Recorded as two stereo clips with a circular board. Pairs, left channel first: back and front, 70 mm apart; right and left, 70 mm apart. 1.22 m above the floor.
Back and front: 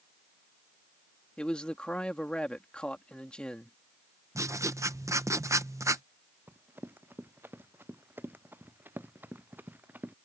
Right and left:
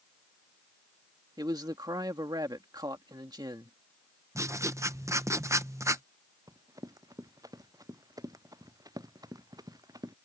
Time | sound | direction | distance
1.4 | a man speaking | 105° left | ?
4.3 | writing | 45° left | ?
6.5 | running footsteps | 60° left | ?